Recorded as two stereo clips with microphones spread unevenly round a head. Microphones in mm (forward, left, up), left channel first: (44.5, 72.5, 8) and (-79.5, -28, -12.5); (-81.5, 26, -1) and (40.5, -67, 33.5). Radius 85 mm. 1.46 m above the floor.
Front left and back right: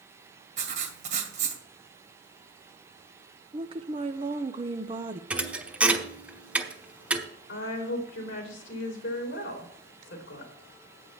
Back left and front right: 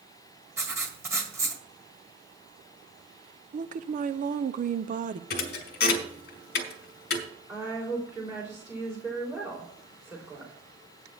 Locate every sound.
0.6 s writing: 95° right, 1.9 m
3.5 s a woman speaking: 80° right, 0.7 m
5.3 s a thud: 130° left, 1.4 m
7.5 s a woman speaking: 40° left, 3 m